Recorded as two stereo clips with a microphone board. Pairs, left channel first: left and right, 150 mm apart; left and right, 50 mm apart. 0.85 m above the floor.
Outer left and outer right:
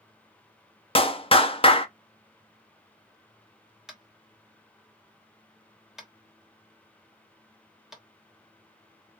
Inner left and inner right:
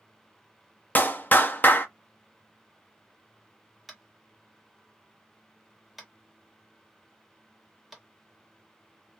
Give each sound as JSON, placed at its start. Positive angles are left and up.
{"t": 0.9, "sound": "a clap", "side_deg": 40, "distance_m": 0.6}
{"t": 3.9, "sound": "tapping", "side_deg": -5, "distance_m": 1.2}